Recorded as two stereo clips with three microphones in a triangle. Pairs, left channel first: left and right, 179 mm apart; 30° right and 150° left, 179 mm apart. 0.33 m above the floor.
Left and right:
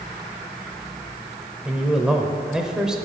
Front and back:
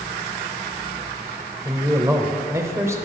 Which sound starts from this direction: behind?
A man speaking, at 1.6 s.